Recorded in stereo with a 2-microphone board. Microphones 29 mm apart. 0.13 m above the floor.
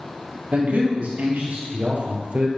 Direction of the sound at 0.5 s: 55° right (ahead or behind).